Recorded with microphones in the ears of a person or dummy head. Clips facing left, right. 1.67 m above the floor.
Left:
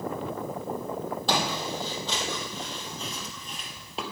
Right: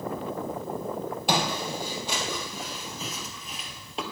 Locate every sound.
1.3 s footsteps: 20° right (ahead or behind), 3 m; by 4.0 s centre (ahead or behind), 2 m